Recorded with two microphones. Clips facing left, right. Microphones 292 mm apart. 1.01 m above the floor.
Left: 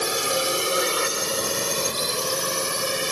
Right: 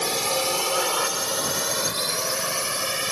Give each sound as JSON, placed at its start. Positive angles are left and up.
{"t": 0.0, "sound": "a drone", "side_deg": 10}